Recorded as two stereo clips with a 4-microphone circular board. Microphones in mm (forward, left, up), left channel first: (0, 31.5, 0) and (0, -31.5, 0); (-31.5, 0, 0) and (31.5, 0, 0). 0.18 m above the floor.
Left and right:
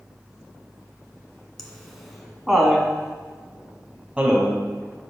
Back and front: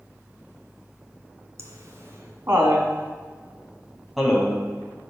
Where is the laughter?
Straight ahead, 1.8 m; by 5.1 s 130° right, 1.3 m.